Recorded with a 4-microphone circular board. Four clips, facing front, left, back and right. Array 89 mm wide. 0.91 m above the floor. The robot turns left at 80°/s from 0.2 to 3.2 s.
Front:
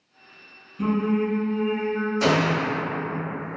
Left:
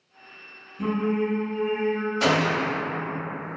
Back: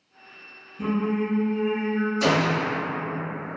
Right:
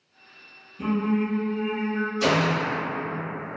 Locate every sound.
0.8 s singing: 15° left, 1.0 m; by 2.1 s 90° right, 1.0 m
2.2 s a gunshot: 60° left, 0.8 m; by 2.8 s 10° left, 0.8 m